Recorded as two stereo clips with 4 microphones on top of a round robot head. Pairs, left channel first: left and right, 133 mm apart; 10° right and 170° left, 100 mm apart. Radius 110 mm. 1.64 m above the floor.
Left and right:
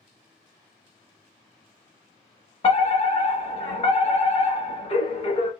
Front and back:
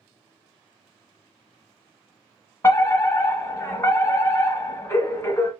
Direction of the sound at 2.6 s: 55° left.